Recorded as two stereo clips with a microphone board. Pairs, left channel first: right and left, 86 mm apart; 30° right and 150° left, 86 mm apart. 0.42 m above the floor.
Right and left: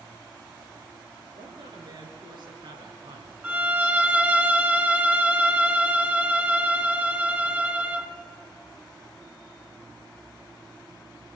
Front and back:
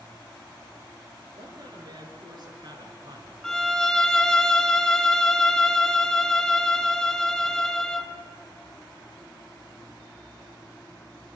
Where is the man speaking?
115° left, 7.5 m.